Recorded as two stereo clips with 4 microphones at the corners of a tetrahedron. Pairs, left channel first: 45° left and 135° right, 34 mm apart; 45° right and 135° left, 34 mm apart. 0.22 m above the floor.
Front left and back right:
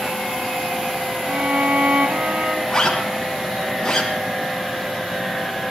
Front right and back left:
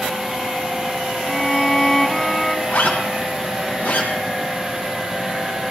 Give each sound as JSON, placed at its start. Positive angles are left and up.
{"t": 1.3, "sound": "a violin", "azimuth_deg": -125, "distance_m": 0.9}
{"t": 2.7, "sound": "a zipper", "azimuth_deg": -30, "distance_m": 5.0}